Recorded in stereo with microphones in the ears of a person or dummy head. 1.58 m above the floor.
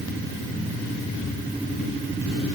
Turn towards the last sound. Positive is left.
No sound to turn to.